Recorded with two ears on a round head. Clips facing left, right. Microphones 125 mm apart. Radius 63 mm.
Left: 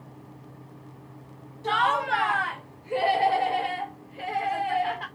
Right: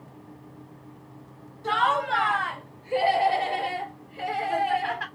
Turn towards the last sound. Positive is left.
turn(degrees=-60)  # may be behind; listen again after turning